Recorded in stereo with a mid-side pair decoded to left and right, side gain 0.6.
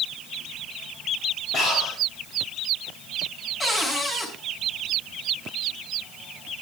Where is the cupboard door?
25° left, 7.5 m.